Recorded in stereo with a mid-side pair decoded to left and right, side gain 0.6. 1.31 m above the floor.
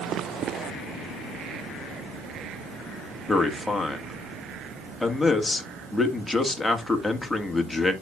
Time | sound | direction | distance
3.3 | a man speaking | 5° left | 1.7 m